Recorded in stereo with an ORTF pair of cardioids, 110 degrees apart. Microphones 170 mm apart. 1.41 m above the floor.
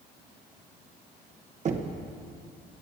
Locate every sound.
1.6 s knocking: 45° right, 1.0 m